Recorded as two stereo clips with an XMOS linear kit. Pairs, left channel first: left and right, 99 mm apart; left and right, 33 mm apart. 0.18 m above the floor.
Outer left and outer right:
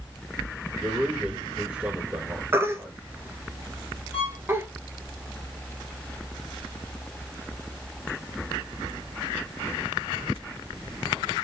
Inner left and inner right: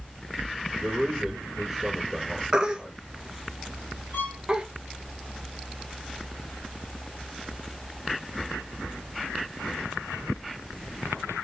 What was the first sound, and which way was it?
A man speaking, 15° right (ahead or behind).